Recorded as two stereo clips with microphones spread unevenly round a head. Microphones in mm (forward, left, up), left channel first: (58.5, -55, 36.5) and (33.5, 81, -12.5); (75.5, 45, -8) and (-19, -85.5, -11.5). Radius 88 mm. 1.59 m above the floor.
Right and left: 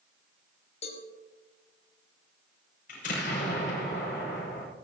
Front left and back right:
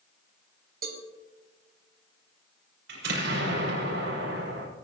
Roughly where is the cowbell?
Right.